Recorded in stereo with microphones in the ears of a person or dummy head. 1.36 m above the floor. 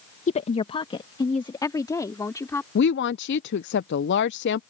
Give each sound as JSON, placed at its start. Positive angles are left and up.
{"t": 0.3, "sound": "a woman speaking", "side_deg": 40}
{"t": 2.8, "sound": "a woman speaking", "side_deg": 55}